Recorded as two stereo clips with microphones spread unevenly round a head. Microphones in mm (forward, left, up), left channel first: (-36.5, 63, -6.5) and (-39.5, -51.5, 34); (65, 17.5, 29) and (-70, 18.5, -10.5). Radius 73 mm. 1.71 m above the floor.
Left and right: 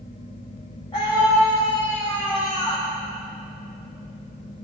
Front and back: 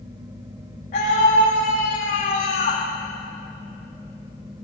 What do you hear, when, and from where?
0.9 s a scream: 20° left, 2.5 m; by 2.8 s 15° left, 4 m